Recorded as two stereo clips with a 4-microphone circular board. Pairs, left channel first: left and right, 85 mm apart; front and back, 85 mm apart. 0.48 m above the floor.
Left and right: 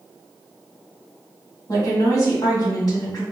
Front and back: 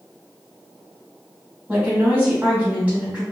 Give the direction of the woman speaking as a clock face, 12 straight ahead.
8 o'clock.